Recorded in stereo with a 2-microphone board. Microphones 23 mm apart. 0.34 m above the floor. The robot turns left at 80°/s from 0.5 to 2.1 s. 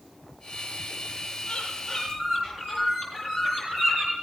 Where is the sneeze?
No sneeze in this recording.